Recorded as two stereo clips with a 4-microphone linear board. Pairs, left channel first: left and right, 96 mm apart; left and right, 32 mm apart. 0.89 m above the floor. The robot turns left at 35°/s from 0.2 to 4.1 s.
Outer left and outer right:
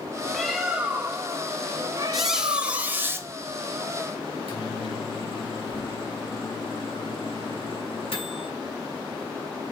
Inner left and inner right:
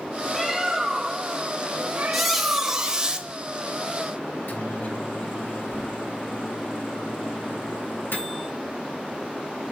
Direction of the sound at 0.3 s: Straight ahead.